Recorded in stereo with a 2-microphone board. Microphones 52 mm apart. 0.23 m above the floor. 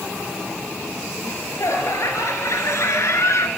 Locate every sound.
1.2 s laughter: 75° left (ahead or behind), 4 m; by 3.5 s 65° left (ahead or behind), 2.5 m